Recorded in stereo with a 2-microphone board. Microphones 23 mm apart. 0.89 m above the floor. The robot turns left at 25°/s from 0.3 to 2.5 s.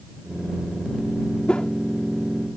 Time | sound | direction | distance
1.5 | a whoosh | 50° left (ahead or behind) | ?